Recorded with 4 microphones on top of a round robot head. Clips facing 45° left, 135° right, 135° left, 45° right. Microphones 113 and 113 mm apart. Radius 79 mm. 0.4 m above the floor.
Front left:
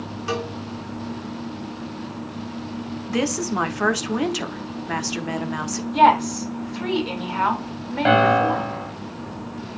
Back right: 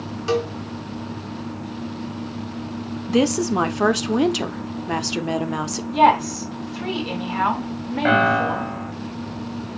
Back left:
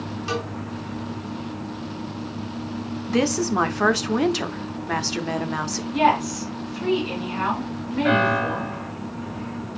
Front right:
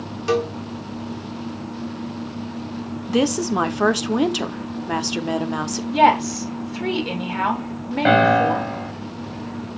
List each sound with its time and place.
0.3 s a cowbell: 75° right, 3 m
3.1 s a woman speaking: 100° right, 1.0 m
5.9 s a woman speaking: 50° right, 2.5 m
8.1 s a piano: 25° right, 1.5 m